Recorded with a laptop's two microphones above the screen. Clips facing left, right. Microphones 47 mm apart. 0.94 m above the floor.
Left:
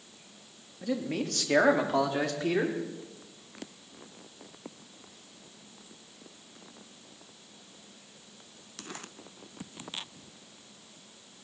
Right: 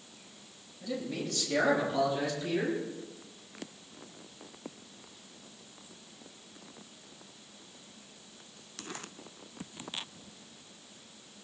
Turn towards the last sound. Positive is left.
turn(degrees=75)  # may be behind; listen again after turning